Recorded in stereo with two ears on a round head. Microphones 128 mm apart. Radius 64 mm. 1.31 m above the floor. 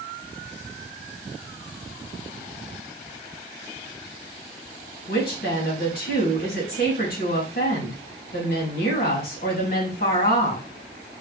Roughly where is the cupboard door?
I don't hear a cupboard door.